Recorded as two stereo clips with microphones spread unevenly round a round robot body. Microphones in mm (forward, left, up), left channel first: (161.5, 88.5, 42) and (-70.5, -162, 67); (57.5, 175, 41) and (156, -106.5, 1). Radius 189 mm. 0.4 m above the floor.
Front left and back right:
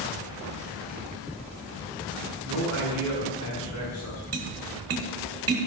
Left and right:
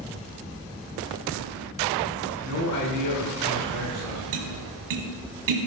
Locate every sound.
2.4 s a man speaking: 95° left, 4.5 m
4.3 s tapping: 80° right, 1.6 m